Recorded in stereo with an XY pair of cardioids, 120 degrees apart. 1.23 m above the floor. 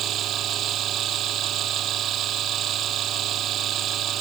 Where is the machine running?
60° right.